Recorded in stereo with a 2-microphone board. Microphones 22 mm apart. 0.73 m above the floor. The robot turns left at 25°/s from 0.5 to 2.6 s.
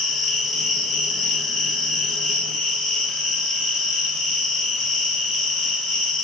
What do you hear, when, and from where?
0.0 s an insect: 165° left, 1.3 m; by 6.2 s 115° left, 1.3 m